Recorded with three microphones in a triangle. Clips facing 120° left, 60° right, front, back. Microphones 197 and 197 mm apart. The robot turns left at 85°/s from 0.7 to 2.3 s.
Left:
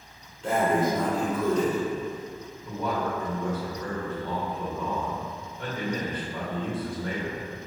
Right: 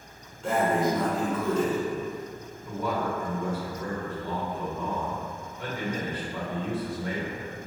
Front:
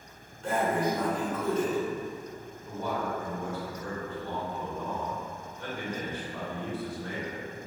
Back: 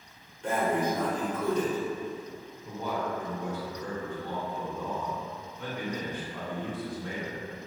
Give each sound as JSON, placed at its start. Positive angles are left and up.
{"t": 0.4, "sound": "breathing", "azimuth_deg": -150, "distance_m": 1.5}
{"t": 2.6, "sound": "a man speaking", "azimuth_deg": -130, "distance_m": 1.4}